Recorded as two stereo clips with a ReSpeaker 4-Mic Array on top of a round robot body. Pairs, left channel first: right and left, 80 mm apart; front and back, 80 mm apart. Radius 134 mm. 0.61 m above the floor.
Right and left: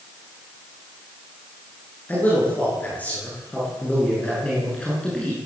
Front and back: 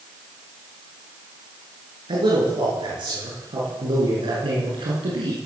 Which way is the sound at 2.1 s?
160° right.